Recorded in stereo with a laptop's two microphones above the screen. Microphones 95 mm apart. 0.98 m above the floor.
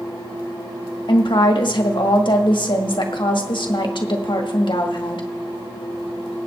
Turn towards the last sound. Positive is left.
turn(degrees=60)  # may be behind; listen again after turning